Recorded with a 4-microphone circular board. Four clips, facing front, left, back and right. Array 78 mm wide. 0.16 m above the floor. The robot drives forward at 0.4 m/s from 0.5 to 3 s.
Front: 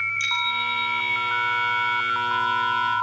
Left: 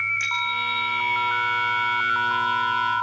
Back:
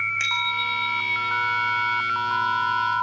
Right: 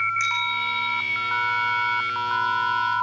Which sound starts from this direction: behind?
A bicycle bell, at 0.2 s.